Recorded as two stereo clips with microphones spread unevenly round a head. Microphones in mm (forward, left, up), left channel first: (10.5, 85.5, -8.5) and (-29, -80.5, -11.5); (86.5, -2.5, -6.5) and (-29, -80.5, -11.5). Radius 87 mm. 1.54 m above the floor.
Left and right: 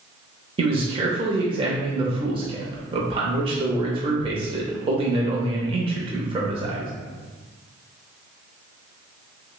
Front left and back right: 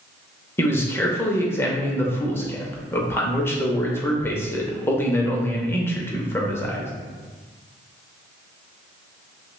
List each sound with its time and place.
0.6 s a man speaking: 40° right, 0.6 m